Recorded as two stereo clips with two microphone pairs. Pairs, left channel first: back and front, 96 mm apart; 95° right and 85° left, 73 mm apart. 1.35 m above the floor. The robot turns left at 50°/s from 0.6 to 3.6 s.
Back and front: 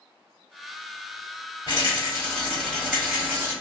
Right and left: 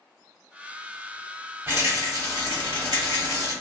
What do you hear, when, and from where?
1.7 s a rattle: 145° left, 1.6 m; by 3.5 s 55° left, 1.6 m